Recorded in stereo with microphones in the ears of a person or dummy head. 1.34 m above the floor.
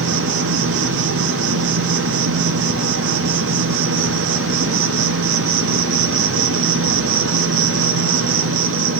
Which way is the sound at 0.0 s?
65° right (ahead or behind).